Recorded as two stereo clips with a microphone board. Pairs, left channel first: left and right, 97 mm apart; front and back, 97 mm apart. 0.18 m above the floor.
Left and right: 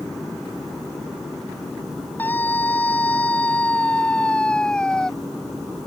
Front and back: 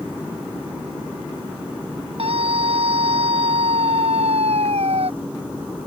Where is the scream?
160° left; by 5.1 s 175° left.